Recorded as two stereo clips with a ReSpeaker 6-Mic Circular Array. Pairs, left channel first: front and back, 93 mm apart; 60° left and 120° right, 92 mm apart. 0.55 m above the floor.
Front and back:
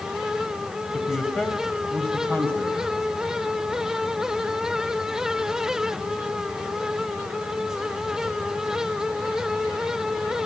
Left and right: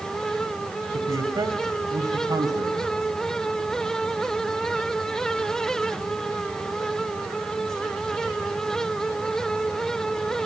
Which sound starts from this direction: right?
A man speaking, at 0.9 s.